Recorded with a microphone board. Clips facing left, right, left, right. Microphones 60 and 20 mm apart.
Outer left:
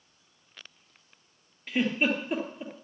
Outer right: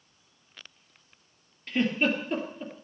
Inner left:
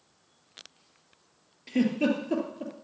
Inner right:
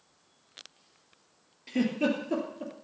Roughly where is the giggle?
Centre.